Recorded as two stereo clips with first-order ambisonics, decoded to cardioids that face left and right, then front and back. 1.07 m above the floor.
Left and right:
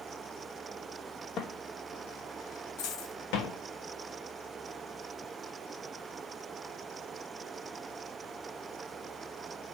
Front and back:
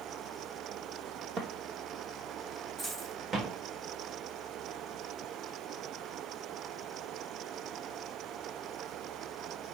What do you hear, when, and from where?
1.4 s footsteps: 140° left, 2.0 m; by 3.6 s 110° left, 4 m
2.8 s a dropped coin: 115° left, 2.5 m